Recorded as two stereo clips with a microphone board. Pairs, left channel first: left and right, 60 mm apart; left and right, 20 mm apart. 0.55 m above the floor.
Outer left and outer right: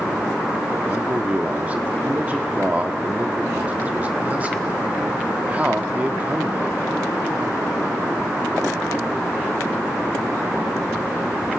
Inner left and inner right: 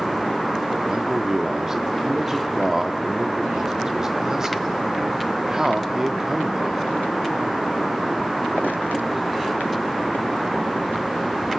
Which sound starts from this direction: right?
A man speaking, at 0.8 s.